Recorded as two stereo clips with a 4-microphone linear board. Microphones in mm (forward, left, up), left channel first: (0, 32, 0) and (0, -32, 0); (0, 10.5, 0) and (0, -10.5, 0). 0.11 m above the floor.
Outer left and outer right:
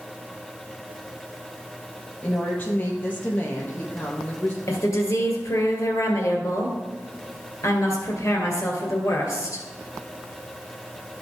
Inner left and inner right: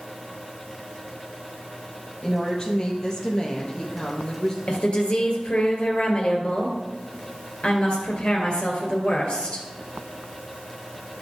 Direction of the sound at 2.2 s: 30° left (ahead or behind).